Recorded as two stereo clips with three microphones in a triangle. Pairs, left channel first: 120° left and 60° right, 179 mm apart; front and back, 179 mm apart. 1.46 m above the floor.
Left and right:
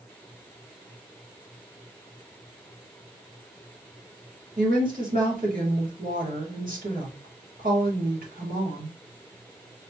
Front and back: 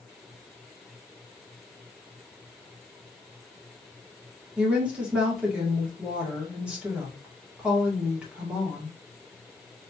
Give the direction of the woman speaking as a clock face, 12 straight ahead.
3 o'clock.